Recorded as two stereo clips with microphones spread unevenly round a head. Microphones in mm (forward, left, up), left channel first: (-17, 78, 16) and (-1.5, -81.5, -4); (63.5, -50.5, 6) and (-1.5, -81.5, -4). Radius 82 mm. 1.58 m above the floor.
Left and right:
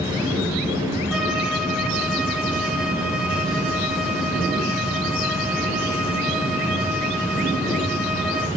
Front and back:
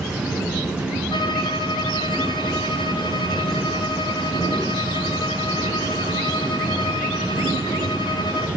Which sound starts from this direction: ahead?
A violin, at 1.1 s.